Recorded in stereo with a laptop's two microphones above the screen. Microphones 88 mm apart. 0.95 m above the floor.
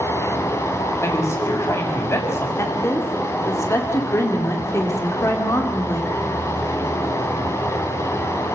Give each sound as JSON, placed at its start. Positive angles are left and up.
{"t": 0.0, "sound": "running water", "side_deg": 30, "distance_m": 1.8}
{"t": 1.0, "sound": "a man speaking", "side_deg": 30, "distance_m": 6.0}
{"t": 2.6, "sound": "a woman speaking", "side_deg": 35, "distance_m": 2.0}